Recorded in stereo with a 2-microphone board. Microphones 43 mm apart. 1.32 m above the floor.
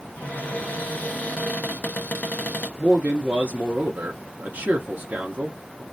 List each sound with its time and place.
0.2 s a cupboard door: 40° left (ahead or behind), 0.9 m
2.8 s a man speaking: 45° right (ahead or behind), 0.5 m